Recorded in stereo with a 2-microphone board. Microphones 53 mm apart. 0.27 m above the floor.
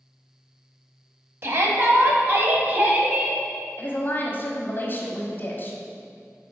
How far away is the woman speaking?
About 1.2 m.